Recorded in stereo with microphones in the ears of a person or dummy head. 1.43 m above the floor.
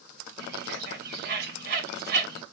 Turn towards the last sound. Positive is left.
turn(degrees=-60)  # may be behind; listen again after turning